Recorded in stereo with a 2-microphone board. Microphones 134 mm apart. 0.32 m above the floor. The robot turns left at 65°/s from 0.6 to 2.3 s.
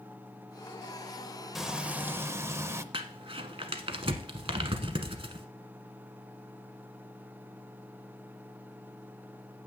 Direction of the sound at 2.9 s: 40° right (ahead or behind).